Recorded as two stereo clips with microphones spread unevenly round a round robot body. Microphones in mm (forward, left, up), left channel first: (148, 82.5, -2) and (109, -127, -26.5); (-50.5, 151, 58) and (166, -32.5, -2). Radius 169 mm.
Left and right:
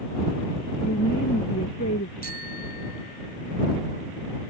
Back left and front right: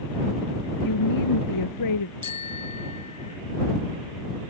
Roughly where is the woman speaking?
Behind left.